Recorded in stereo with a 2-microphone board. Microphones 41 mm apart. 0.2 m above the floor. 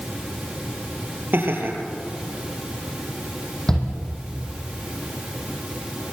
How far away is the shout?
About 7.5 m.